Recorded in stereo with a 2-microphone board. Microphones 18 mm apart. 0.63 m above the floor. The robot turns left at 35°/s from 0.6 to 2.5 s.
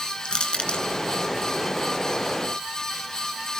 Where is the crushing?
70° left (ahead or behind), 2 m; by 0.8 s 75° left (ahead or behind), 2 m.